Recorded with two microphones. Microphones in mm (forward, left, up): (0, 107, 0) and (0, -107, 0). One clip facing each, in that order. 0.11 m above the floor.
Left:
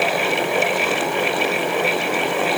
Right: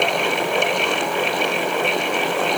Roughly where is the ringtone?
No ringtone in this recording.